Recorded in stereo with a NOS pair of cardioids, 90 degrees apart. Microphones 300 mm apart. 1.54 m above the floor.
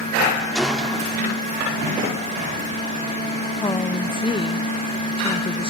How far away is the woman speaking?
About 1.0 m.